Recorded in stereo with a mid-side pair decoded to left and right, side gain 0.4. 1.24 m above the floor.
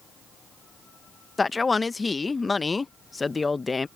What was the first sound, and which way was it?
A man speaking, 30° left.